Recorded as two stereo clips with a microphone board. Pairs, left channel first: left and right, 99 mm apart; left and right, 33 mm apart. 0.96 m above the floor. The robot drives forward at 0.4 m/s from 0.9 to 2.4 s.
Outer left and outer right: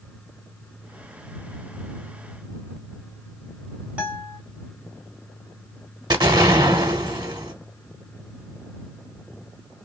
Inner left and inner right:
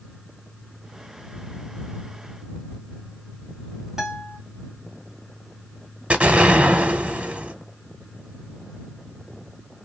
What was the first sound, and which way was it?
A guitar, 15° right (ahead or behind).